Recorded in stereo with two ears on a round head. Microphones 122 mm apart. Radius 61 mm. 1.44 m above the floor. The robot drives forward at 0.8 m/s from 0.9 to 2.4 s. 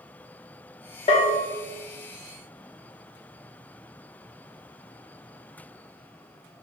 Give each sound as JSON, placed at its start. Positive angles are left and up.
{"t": 1.1, "sound": "a bell", "side_deg": 40, "distance_m": 1.5}